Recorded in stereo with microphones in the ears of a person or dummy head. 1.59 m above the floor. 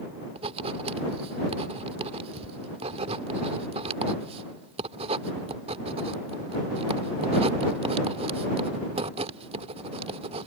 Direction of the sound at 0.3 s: 35° right (ahead or behind).